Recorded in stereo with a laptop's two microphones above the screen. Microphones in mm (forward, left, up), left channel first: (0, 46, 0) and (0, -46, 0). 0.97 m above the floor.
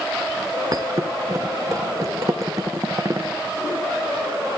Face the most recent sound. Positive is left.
turn(degrees=-40)  # may be behind; listen again after turning